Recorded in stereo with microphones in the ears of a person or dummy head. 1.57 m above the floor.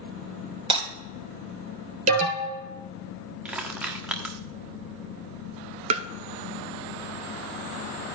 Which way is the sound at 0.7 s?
30° right (ahead or behind).